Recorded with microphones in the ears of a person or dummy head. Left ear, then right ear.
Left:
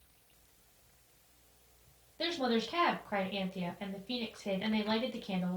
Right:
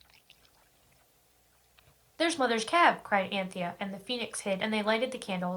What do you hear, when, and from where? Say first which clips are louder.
2.2 s a woman speaking: right 5 dB; 55° right (ahead or behind), 0.6 m